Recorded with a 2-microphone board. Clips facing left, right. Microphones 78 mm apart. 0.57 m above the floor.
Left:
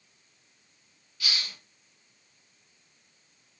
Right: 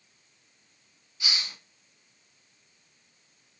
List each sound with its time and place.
1.2 s a hiss: 20° right (ahead or behind), 1.1 m